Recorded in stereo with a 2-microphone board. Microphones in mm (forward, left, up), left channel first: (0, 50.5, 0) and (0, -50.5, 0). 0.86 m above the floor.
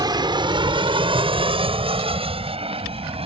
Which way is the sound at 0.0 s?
45° right (ahead or behind).